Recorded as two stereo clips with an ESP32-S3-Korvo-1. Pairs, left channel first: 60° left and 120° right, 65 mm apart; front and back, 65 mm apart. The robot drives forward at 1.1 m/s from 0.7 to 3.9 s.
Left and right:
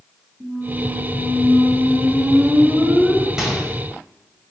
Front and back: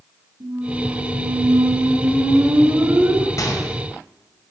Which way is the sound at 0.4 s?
170° left.